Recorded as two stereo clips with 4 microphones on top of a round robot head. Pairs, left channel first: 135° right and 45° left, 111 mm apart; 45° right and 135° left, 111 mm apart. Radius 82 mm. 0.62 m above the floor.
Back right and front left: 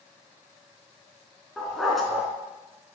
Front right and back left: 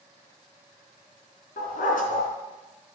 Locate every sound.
1.6 s a dog barking: 45° right, 3.5 m